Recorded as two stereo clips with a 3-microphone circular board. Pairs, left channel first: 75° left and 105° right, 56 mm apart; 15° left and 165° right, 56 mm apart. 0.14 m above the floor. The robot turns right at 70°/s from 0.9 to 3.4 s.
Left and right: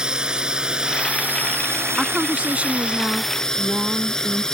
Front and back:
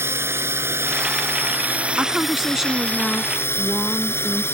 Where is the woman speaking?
145° right; by 4.4 s 45° right.